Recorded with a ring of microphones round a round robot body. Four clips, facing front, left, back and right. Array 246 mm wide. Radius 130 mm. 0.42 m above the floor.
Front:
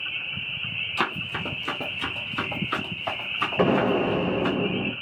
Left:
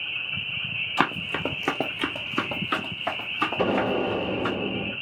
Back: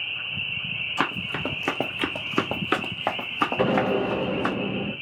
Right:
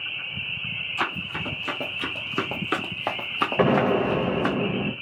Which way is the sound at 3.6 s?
75° right.